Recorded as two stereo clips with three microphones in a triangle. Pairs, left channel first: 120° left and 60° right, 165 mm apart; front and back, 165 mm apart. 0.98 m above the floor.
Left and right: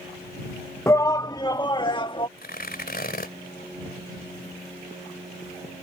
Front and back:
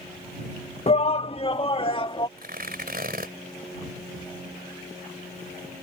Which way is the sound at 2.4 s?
150° left.